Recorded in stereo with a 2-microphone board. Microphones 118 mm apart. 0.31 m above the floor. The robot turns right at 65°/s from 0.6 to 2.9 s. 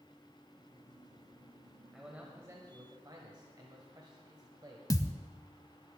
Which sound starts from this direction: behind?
A man speaking, at 1.9 s.